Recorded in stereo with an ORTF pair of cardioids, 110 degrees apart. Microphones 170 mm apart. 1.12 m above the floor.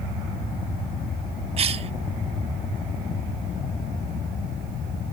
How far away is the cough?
About 0.8 m.